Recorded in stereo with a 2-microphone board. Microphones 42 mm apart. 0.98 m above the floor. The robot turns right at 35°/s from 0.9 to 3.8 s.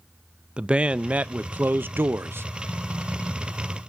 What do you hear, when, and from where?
0.6 s a man speaking: 150° right, 0.5 m; by 2.5 s 95° right, 0.5 m